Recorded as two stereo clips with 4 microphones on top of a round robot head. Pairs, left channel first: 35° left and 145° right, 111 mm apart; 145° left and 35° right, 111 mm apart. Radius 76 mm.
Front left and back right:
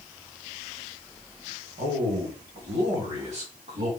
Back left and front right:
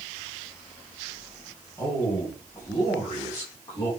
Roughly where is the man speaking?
Behind right.